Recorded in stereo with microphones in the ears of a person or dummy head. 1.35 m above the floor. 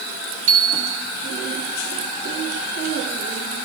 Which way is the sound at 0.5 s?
65° right (ahead or behind).